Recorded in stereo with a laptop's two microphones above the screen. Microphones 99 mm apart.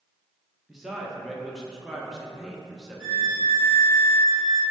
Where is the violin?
5° left (ahead or behind), 0.6 m.